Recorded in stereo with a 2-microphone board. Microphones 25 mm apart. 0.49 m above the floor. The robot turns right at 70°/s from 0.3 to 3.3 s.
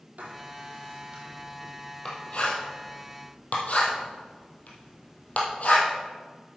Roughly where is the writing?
Right.